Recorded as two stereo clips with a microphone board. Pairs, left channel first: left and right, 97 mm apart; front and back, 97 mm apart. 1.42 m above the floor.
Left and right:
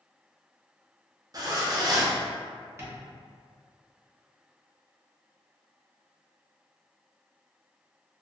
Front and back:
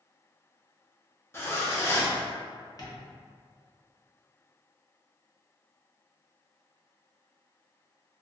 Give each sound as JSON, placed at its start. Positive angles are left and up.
{"t": 1.3, "sound": "a zipper", "azimuth_deg": -55, "distance_m": 0.5}
{"t": 2.8, "sound": "tapping", "azimuth_deg": -35, "distance_m": 0.6}